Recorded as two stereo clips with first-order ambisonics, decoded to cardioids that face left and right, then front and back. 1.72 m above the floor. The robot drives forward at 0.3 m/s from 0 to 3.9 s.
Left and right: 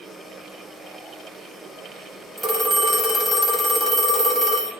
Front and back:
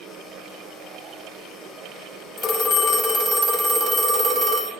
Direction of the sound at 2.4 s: 5° left.